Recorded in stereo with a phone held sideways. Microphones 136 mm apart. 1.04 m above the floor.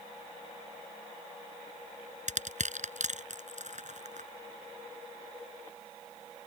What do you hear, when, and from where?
2.3 s crushing: 60° right (ahead or behind)